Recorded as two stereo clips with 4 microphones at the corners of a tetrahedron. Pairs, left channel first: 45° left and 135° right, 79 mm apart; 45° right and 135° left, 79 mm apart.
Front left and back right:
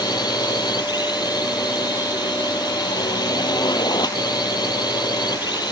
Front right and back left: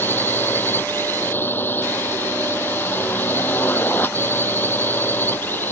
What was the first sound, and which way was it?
A drone, 20° left.